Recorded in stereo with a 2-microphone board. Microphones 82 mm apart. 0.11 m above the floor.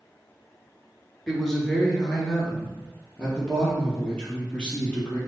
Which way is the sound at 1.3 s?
5° left (ahead or behind).